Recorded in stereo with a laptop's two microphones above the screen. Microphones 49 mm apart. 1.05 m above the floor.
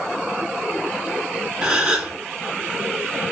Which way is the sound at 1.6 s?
15° right (ahead or behind).